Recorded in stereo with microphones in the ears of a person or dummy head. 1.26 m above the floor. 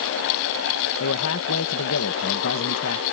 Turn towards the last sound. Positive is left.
turn(degrees=70)  # may be behind; listen again after turning